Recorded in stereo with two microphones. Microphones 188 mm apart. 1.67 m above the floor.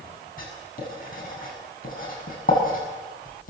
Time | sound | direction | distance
0.4 | writing | 45° left (ahead or behind) | 7.5 m